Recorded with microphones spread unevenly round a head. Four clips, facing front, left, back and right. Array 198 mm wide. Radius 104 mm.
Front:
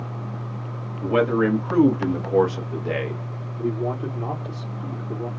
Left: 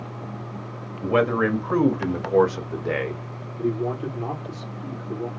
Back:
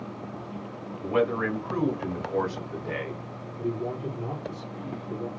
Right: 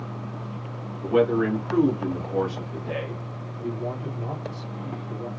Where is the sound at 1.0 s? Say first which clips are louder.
Even, front 6 dB; 50° left, 3 m; by 3.2 s 45° left, 1.8 m.